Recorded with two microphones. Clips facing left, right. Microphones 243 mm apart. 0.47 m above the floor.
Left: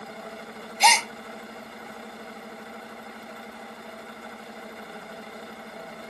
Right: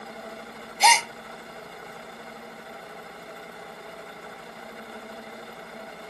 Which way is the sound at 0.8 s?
5° right (ahead or behind).